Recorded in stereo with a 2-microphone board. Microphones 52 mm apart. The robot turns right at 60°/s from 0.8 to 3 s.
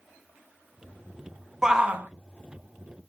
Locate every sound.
1.6 s a shout: 5° right (ahead or behind), 0.7 m; by 2.1 s 35° right (ahead or behind), 0.7 m